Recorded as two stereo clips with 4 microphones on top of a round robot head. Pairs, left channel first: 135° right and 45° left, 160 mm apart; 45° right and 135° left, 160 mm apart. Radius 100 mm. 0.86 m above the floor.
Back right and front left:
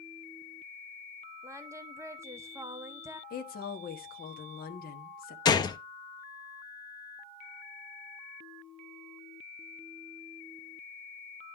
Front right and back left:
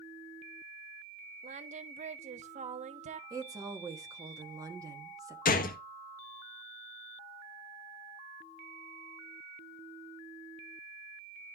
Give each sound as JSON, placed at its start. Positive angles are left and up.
{"t": 1.4, "sound": "singing", "azimuth_deg": 110, "distance_m": 0.7}
{"t": 3.3, "sound": "a woman speaking", "azimuth_deg": -155, "distance_m": 1.2}
{"t": 5.5, "sound": "a gunshot", "azimuth_deg": -70, "distance_m": 0.7}